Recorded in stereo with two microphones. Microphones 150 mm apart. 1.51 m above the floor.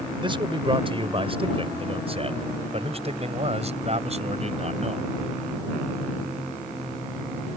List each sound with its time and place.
0.2 s a man speaking: 35° right (ahead or behind); by 5.1 s 45° right (ahead or behind)